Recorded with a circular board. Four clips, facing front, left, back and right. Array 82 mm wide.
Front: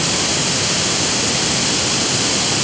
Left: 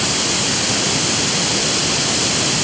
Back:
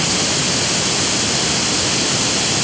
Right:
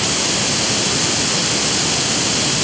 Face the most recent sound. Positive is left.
No sound to turn to.